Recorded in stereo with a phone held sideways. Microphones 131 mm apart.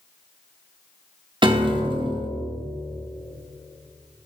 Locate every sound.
1.4 s a piano: 40° right (ahead or behind), 0.6 m